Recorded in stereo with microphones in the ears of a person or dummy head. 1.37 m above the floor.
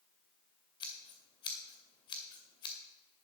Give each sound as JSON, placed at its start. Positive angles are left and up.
{"t": 0.8, "sound": "scissors", "side_deg": 25, "distance_m": 2.0}